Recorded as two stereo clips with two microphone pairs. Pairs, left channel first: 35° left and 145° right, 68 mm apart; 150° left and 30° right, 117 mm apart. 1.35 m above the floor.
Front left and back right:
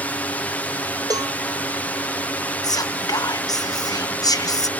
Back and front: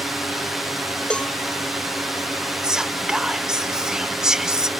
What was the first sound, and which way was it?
A drone, 55° left.